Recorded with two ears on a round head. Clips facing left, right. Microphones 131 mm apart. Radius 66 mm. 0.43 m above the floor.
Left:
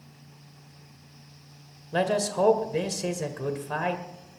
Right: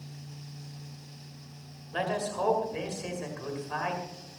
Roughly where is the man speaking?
Left.